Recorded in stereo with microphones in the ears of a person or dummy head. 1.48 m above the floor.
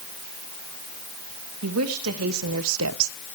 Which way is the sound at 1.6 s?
90° right.